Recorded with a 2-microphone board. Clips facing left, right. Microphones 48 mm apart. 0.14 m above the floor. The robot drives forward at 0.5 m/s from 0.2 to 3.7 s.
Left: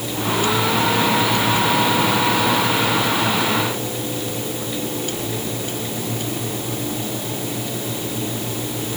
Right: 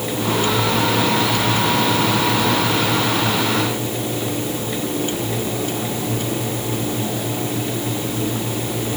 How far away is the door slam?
No door slam in this recording.